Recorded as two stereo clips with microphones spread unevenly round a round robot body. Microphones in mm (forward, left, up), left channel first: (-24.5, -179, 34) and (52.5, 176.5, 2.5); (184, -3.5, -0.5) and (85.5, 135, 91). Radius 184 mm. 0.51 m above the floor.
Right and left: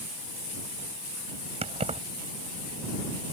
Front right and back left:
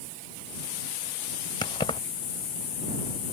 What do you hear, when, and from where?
1.6 s keys jangling: 5° left